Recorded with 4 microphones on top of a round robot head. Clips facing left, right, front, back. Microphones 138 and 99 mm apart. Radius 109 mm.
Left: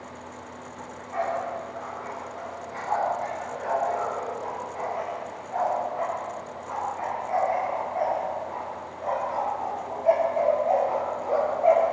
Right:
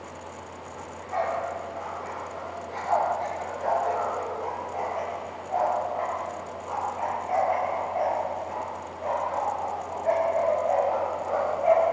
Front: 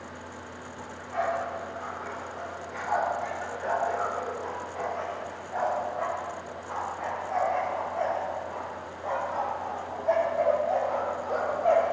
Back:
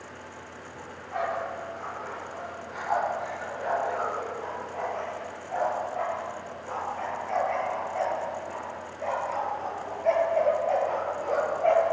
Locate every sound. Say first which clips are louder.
0.8 s a dog barking: right 1 dB, front 1 dB; 125° right, 10 m; by 11.9 s 150° left, 5.5 m